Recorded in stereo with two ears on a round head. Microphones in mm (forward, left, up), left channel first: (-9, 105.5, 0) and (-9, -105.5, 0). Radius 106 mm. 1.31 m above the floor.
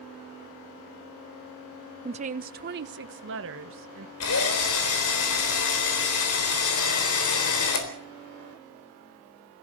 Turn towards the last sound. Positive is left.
turn(degrees=75)  # may be behind; listen again after turning